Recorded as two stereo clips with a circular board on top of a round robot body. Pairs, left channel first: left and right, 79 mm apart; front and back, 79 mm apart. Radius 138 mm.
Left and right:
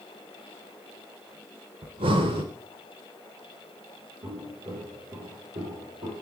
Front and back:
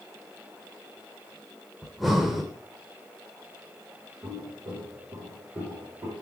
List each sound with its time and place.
1.8 s breathing: 90° right, 0.6 m
4.2 s footsteps: 120° right, 5 m; by 6.1 s 105° right, 5 m